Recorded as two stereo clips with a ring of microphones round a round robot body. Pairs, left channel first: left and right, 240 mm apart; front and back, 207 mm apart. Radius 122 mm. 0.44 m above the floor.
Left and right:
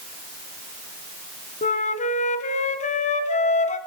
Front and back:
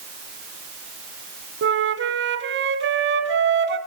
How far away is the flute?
About 2.5 m.